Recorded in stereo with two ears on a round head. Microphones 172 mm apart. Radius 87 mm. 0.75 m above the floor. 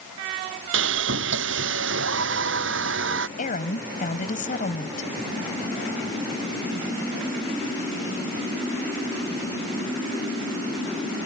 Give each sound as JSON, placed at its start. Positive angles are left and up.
{"t": 0.7, "sound": "sawing", "side_deg": -75}
{"t": 3.4, "sound": "a woman speaking", "side_deg": 45}